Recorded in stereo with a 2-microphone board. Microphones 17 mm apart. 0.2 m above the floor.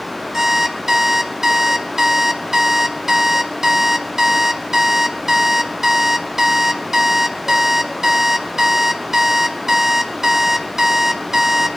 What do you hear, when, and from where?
0.3 s an alarm clock: 25° right (ahead or behind), 0.7 m